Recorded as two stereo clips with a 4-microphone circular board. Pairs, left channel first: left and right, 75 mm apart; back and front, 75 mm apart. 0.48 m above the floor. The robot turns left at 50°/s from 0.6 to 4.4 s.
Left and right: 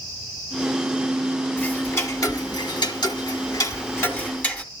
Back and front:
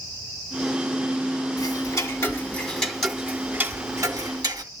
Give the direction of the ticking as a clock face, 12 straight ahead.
7 o'clock.